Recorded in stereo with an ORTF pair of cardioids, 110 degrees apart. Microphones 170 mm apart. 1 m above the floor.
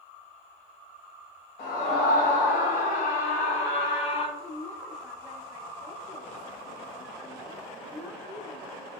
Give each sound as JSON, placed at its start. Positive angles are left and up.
{"t": 1.6, "sound": "a scream", "azimuth_deg": 65, "distance_m": 3.5}
{"t": 4.4, "sound": "a woman speaking", "azimuth_deg": 10, "distance_m": 1.6}